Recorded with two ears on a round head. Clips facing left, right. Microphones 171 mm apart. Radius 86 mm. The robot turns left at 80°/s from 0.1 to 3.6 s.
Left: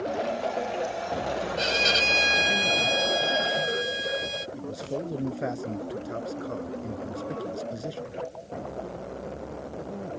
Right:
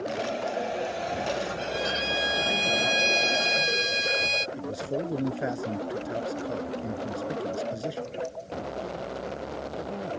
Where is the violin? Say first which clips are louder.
Left 2 dB; 90° left; by 4.5 s 75° right.